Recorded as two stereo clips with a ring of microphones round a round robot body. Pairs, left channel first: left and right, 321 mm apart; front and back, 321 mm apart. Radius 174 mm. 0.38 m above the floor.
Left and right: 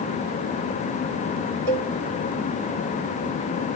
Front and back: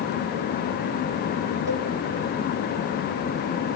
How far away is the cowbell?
About 0.7 m.